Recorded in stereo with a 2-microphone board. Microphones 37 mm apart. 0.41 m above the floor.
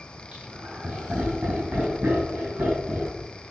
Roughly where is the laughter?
Right.